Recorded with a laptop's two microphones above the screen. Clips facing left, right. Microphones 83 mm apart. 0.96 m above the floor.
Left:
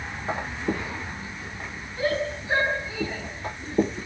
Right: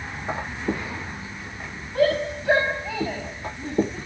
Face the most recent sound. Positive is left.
turn(degrees=-75)  # may be behind; listen again after turning